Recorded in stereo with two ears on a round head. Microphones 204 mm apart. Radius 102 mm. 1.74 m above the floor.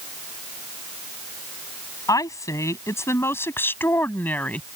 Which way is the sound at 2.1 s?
15° left (ahead or behind).